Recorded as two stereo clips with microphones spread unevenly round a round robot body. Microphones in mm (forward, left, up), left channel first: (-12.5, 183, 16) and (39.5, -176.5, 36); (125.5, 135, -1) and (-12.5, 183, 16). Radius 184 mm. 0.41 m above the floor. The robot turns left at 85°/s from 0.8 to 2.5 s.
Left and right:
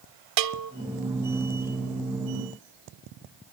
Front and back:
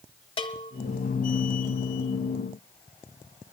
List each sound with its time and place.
0.4 s a bell: 55° right, 0.5 m